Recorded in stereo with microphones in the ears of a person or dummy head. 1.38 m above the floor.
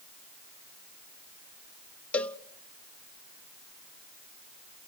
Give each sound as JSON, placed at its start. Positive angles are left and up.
{"t": 2.1, "sound": "a cowbell", "side_deg": 10, "distance_m": 0.6}